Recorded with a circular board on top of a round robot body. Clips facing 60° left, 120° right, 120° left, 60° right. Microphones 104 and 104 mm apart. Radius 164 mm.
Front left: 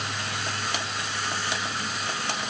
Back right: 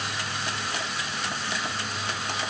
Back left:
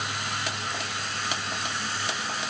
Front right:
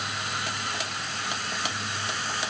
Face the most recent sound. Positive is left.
No sound to turn to.